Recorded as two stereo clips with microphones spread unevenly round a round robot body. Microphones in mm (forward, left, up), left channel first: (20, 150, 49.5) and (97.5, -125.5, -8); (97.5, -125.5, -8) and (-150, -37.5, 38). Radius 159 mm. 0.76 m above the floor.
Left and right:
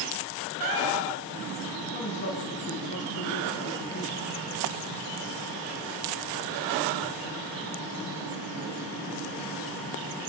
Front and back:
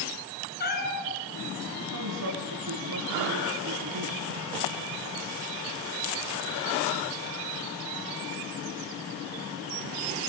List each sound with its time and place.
0.6 s a cat meowing: 75° right, 6 m
1.9 s a woman speaking: 175° left, 9 m